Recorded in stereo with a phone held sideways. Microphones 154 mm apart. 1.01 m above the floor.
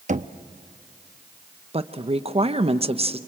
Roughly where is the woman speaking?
Right.